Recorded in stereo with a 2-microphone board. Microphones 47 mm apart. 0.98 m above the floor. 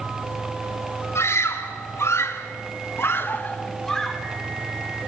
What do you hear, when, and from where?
1.1 s a scream: 70° left (ahead or behind), 3 m; by 4.2 s centre (ahead or behind), 1.1 m